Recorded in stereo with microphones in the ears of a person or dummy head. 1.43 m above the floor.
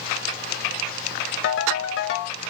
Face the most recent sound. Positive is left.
turn(degrees=65)  # may be behind; listen again after turning